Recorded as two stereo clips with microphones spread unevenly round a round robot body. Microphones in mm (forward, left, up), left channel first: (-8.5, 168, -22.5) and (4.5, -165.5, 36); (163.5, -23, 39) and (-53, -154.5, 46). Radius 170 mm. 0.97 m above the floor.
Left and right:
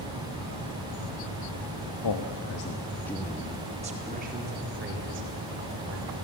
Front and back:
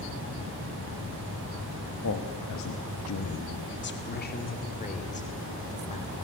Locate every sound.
2.0 s a man speaking: 70° left, 1.3 m; by 6.1 s 35° right, 4.5 m